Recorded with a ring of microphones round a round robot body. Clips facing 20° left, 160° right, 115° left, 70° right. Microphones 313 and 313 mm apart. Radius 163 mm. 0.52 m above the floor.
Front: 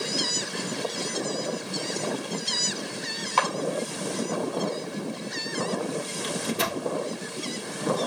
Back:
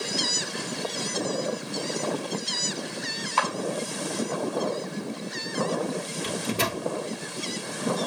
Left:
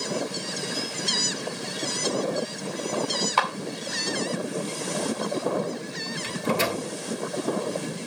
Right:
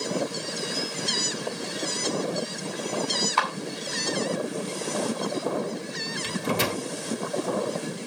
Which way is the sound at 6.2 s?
105° right.